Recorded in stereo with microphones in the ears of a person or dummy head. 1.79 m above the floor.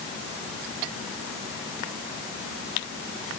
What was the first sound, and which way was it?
Only background noise.